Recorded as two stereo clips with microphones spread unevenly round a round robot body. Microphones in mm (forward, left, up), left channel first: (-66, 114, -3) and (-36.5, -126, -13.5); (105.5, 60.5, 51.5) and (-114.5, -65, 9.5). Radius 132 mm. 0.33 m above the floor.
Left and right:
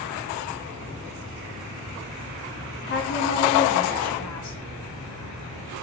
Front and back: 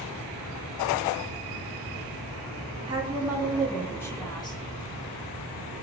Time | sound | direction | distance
2.9 | a woman speaking | 145° left | 2.5 m